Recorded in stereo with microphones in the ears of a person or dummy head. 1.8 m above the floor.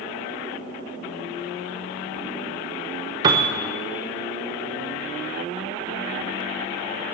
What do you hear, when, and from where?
3.2 s a piano: 15° right (ahead or behind), 0.9 m